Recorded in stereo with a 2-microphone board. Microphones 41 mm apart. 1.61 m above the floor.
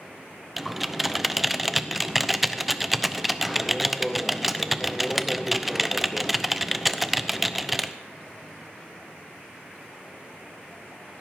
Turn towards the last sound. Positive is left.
turn(degrees=-5)  # may be behind; listen again after turning